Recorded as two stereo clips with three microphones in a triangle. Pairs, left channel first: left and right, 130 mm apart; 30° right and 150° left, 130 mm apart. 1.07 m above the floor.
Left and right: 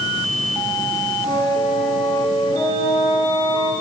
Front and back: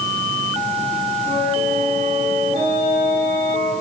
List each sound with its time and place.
1.2 s a flute: 140° left, 9 m